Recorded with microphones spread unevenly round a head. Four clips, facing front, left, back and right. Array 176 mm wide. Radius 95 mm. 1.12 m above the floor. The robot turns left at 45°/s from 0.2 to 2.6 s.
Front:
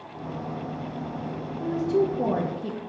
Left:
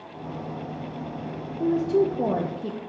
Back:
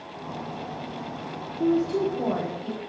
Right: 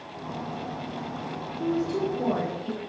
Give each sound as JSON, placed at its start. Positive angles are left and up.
{"t": 1.6, "sound": "a woman speaking", "azimuth_deg": 135, "distance_m": 0.7}